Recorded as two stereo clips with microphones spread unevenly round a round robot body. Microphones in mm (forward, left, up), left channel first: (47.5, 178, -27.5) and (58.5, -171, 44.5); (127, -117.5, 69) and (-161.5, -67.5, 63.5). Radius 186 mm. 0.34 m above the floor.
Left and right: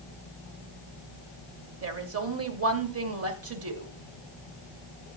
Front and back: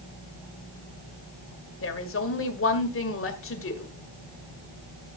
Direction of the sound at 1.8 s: 40° right.